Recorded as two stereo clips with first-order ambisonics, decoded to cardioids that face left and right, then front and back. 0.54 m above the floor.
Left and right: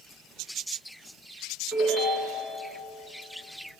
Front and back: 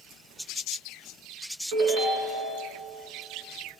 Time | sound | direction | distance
1.7 | a ringtone | 170° left | 2.5 m